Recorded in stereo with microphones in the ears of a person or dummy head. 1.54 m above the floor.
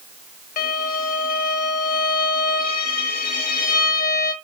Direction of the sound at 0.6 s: 50° left (ahead or behind).